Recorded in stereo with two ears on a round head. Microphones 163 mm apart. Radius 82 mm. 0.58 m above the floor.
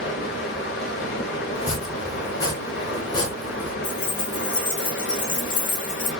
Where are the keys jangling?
45° left (ahead or behind), 1.3 m.